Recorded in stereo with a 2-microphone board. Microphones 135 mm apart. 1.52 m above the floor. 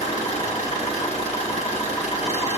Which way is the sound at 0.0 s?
50° left (ahead or behind).